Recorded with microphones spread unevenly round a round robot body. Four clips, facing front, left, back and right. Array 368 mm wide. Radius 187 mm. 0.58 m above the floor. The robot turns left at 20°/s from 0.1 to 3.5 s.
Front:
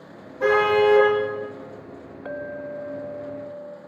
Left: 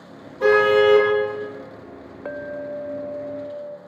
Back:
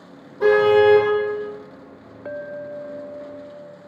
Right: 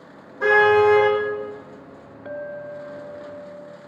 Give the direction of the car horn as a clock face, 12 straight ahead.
6 o'clock.